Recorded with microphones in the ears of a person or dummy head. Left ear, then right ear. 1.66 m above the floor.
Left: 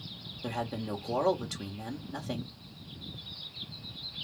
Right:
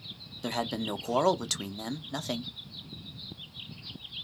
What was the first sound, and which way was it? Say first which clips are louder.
A man speaking: right 4 dB; 80° right.